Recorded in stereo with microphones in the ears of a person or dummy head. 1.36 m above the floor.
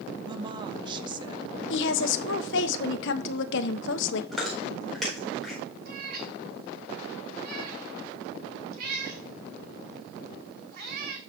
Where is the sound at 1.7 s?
70° left (ahead or behind), 1.0 m.